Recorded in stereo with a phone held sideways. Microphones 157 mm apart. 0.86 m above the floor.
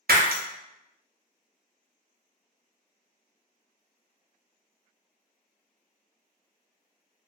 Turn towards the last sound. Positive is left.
turn(degrees=-75)  # may be behind; listen again after turning